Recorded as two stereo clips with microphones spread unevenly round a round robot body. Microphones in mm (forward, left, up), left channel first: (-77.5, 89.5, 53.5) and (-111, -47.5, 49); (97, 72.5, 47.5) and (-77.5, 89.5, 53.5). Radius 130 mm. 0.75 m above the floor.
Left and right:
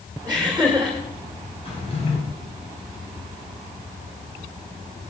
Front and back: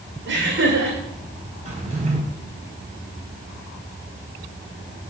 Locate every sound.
0.3 s laughter: 175° left, 2.5 m
1.6 s a drawer: 125° left, 3.5 m